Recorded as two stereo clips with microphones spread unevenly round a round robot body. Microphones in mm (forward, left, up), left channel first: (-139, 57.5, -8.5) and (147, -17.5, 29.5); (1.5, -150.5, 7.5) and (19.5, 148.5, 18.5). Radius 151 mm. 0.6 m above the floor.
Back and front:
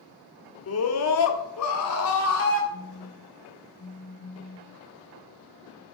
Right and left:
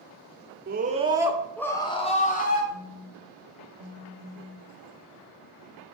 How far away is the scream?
About 1.5 m.